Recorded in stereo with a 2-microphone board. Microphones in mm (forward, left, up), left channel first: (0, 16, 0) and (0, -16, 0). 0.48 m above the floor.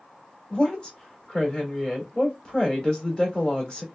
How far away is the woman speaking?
About 1.4 m.